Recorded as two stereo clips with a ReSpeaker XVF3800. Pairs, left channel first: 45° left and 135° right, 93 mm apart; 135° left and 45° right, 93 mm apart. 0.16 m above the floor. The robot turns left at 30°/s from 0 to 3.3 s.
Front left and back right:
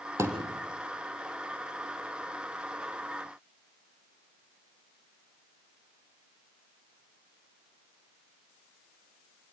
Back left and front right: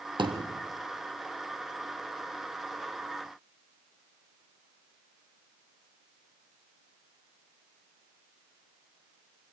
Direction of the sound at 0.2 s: 80° right.